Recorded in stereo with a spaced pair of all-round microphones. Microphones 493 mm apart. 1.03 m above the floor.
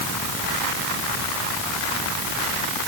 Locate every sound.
Only background noise.